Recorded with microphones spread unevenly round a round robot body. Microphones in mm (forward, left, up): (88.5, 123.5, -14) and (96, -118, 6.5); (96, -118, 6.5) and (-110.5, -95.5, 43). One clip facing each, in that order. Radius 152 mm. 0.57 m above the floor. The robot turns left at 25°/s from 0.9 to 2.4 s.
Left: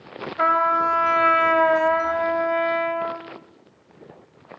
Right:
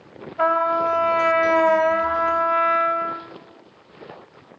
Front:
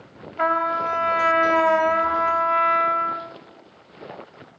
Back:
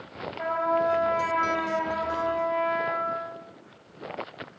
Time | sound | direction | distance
0.4 | a trumpet | 30° left | 1.6 m